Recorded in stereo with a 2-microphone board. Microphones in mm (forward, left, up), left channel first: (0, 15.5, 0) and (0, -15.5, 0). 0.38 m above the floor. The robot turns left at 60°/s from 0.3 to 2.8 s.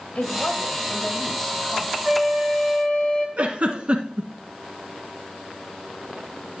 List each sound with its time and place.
0.1 s a woman speaking: 75° left, 2 m; by 1.9 s 25° right, 2 m
2.0 s a flute: 175° right, 1.3 m; by 3.3 s 140° left, 1.3 m
3.4 s a giggle: 45° right (ahead or behind), 1.2 m